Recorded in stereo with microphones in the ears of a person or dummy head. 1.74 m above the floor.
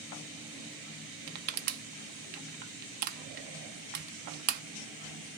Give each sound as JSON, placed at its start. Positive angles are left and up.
{"t": 1.3, "sound": "crushing", "side_deg": -55, "distance_m": 0.5}